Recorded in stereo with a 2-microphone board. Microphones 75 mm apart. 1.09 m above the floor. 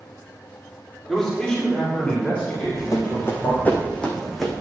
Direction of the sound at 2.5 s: 45° left (ahead or behind).